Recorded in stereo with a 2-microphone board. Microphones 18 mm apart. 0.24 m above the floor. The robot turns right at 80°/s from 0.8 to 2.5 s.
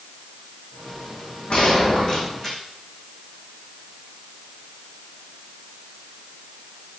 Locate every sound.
1.5 s a gunshot: 90° left, 9.5 m; by 2.6 s 170° left, 9.5 m